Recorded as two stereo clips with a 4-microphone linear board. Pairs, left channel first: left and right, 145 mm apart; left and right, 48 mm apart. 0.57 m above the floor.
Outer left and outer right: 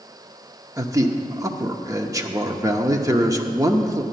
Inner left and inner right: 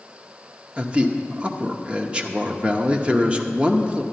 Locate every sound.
0.8 s a man speaking: 25° right (ahead or behind), 0.8 m